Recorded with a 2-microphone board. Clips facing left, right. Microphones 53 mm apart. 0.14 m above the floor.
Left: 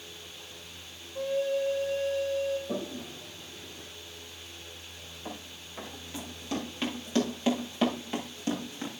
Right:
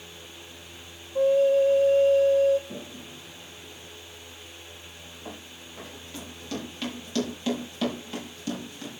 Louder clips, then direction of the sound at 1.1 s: Right 9 dB; 45° right (ahead or behind).